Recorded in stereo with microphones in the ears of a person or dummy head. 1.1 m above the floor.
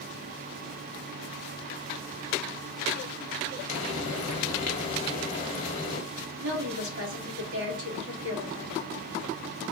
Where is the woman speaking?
75° right (ahead or behind), 1.9 m.